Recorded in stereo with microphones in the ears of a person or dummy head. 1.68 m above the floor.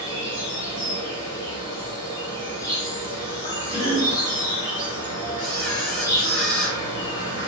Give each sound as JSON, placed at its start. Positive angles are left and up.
{"t": 0.0, "sound": "an insect", "side_deg": 20, "distance_m": 1.5}
{"t": 3.7, "sound": "a cough", "side_deg": 75, "distance_m": 1.9}
{"t": 5.4, "sound": "a camera shutter", "side_deg": 0, "distance_m": 1.5}